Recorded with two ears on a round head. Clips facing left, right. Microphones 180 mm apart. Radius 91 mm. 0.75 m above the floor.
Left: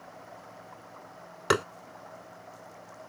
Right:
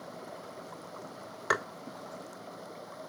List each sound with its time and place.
0.0 s running water: 50° right (ahead or behind)
1.5 s tapping: 40° left (ahead or behind)